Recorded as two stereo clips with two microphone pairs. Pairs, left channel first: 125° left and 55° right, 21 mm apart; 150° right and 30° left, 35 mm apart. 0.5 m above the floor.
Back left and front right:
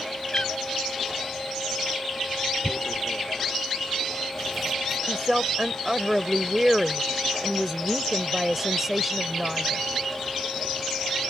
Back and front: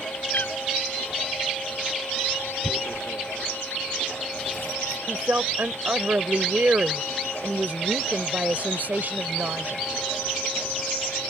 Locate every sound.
0.3 s a cat meowing: 175° right
2.6 s tearing paper: 145° right
5.1 s a woman speaking: 15° left